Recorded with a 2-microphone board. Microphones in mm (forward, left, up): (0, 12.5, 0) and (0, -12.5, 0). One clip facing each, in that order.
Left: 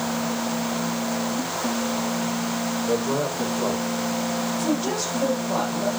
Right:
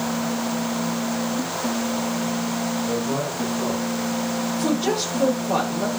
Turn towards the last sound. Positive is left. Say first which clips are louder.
# right 5 dB
turn(degrees=-65)  # may be behind; listen again after turning